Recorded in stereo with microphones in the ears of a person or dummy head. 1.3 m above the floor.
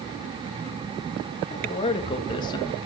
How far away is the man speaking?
About 1.9 m.